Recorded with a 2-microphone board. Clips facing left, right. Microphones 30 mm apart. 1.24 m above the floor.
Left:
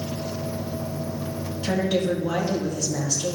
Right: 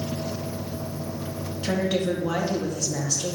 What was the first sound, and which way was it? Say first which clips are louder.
A woman speaking: left 1 dB; 10° right (ahead or behind).